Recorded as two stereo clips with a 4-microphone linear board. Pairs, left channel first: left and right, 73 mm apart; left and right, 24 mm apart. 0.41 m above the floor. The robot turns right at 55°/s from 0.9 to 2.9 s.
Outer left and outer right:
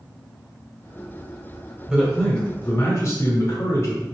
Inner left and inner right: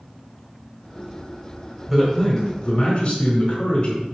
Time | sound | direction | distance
1.9 | a man speaking | 10° right | 1.8 m